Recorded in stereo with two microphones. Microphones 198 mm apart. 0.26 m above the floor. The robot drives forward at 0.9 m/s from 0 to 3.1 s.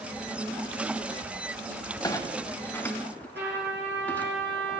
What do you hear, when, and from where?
2.0 s a clunk: 20° left (ahead or behind), 0.6 m; by 4.3 s 10° left (ahead or behind), 1.4 m
3.4 s a trumpet: 65° right (ahead or behind), 7 m